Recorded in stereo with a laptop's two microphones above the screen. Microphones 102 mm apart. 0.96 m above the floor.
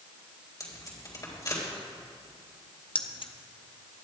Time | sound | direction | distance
0.6 | tape being pulled | 40° left (ahead or behind) | 3.5 m
3.0 | keys jangling | 60° left (ahead or behind) | 0.7 m